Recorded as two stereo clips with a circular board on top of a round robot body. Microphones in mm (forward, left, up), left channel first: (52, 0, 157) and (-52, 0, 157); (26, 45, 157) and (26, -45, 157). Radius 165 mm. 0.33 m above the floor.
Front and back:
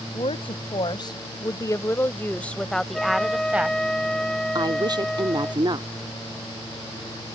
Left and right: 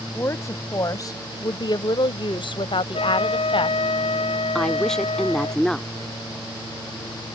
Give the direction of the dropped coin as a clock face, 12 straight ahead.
No dropped coin in this recording.